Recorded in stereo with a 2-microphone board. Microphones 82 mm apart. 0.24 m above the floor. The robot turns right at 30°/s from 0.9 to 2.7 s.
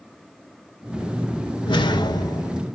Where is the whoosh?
75° left (ahead or behind), 0.6 m; by 2.6 s 45° left (ahead or behind), 0.6 m.